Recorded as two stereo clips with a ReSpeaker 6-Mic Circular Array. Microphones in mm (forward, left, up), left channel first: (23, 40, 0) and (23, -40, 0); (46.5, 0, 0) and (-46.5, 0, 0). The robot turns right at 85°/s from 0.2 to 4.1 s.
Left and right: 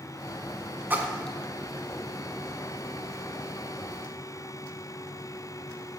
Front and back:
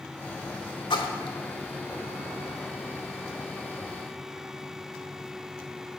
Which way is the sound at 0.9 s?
25° right.